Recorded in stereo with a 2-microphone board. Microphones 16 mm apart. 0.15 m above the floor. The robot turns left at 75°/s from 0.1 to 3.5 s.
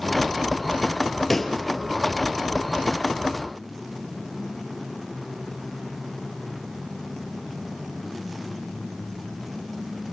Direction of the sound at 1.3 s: 15° left (ahead or behind).